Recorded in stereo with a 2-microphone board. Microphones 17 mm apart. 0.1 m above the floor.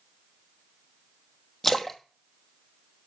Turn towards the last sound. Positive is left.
turn(degrees=25)  # may be behind; listen again after turning